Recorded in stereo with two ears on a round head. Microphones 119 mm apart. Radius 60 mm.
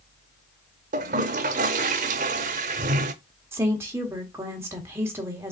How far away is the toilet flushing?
About 0.7 m.